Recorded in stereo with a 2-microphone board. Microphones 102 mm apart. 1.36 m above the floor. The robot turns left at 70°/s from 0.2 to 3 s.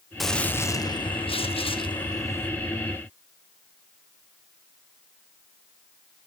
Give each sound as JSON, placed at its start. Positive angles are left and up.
{"t": 0.2, "sound": "a gunshot", "azimuth_deg": 180, "distance_m": 0.9}